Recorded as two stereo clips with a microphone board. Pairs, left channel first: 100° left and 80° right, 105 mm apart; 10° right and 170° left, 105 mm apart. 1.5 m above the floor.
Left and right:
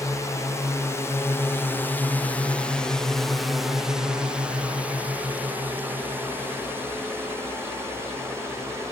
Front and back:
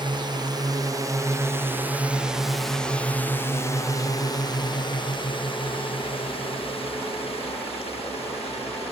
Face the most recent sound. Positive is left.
turn(degrees=-15)